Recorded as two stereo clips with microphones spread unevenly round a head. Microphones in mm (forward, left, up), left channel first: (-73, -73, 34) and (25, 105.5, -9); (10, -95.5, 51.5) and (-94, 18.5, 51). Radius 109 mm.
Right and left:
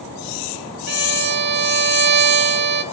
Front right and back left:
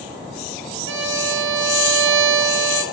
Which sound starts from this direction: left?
A violin, at 0.9 s.